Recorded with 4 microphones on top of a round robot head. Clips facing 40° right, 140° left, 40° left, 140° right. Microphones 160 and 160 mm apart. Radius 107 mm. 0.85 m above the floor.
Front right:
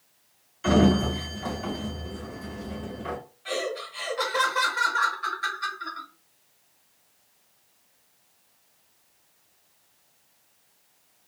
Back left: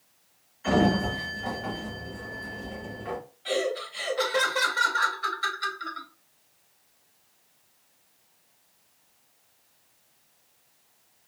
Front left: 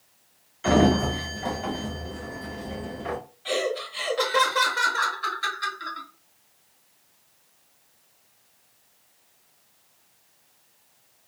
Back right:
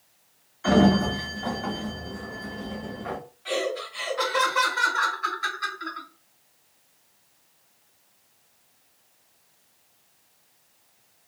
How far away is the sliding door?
About 1.1 m.